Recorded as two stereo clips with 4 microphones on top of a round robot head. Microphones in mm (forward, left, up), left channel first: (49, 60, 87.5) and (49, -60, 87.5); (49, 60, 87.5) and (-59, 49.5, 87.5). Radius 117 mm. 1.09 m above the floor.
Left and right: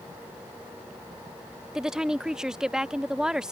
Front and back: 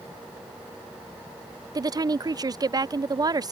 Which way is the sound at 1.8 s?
170° right.